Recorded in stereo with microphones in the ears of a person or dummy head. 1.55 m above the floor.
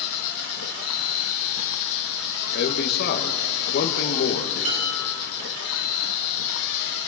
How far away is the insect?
About 1.4 m.